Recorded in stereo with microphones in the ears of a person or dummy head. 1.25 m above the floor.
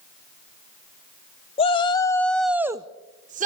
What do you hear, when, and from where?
1.6 s a shout: 25° left (ahead or behind), 0.9 m; by 3.5 s 45° right (ahead or behind), 0.8 m